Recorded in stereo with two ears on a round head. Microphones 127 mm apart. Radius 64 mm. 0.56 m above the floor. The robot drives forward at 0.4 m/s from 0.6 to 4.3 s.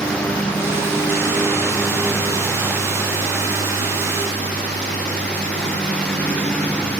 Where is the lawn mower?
5° left (ahead or behind).